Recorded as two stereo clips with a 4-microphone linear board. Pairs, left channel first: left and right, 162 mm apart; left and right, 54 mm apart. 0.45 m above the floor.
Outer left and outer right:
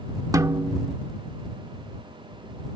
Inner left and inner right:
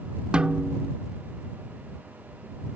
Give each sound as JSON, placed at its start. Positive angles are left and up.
{"t": 0.3, "sound": "a snare drum", "side_deg": -20}